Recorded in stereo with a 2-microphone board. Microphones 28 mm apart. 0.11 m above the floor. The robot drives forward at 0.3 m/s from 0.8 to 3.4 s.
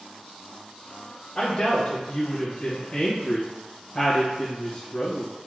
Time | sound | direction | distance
1.4 | a woman speaking | 25° left (ahead or behind) | 1.7 m